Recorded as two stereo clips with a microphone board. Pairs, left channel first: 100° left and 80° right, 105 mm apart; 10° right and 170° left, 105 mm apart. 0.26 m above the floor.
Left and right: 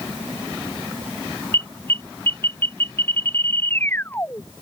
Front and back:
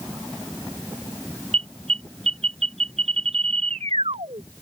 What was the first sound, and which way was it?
An alarm, 170° left.